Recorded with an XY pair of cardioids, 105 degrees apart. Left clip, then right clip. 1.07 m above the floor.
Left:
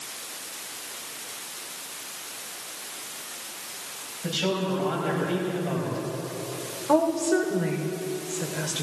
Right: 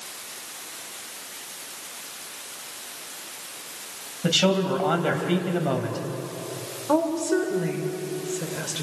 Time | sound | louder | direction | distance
4.2 | a man speaking | right 6 dB | 65° right | 5 m
6.9 | a woman speaking | left 1 dB | 5° right | 3.5 m